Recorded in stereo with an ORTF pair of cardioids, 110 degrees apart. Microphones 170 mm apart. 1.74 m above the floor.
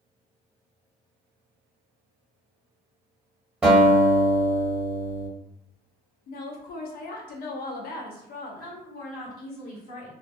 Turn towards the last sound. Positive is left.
turn(degrees=70)